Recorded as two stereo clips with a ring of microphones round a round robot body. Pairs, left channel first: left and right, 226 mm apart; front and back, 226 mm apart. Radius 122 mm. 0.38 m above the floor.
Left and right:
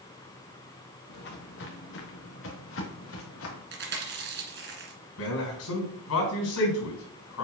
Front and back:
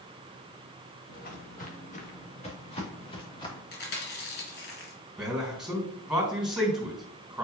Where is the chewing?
50° right, 1.9 m.